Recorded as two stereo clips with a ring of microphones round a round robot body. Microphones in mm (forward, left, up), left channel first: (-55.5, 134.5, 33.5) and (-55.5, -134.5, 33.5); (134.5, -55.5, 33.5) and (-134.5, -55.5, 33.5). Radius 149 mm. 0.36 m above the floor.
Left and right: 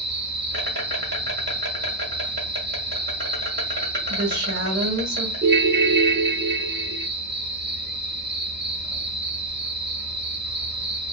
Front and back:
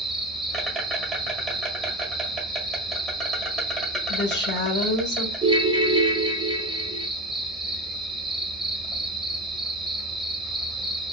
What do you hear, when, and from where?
0.0 s an insect: 90° right, 1.2 m
4.1 s a woman speaking: 40° right, 1.3 m
5.4 s a ringtone: 115° right, 0.5 m